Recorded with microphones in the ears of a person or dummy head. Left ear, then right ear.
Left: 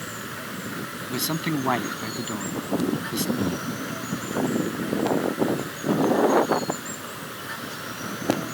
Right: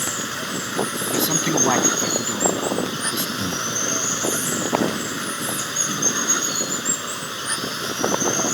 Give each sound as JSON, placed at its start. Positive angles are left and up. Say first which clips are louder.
{"t": 0.0, "sound": "running water", "louder": "right 8 dB", "side_deg": -75}
{"t": 1.1, "sound": "a man speaking", "louder": "right 5 dB", "side_deg": -10}
{"t": 3.4, "sound": "breathing", "louder": "right 3 dB", "side_deg": 10}